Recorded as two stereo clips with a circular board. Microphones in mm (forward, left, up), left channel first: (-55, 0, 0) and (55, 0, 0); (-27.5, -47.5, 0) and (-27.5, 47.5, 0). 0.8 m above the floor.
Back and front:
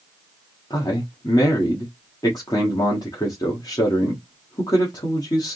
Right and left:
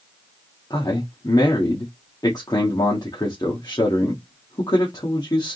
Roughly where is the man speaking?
Behind right.